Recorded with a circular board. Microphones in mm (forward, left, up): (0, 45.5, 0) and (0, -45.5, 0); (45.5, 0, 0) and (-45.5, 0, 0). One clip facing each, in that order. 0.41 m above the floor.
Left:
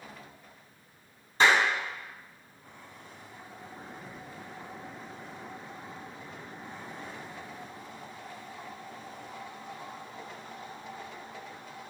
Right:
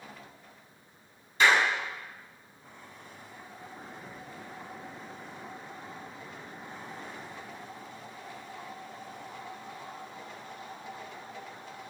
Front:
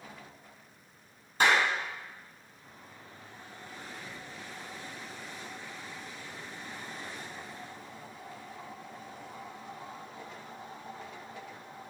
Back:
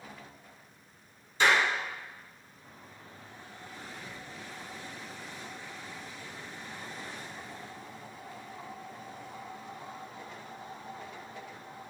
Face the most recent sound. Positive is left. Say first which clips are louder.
# even, even
turn(degrees=35)